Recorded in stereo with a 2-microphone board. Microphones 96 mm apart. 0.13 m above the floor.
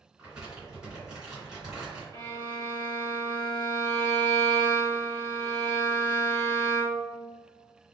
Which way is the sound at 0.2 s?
10° right (ahead or behind).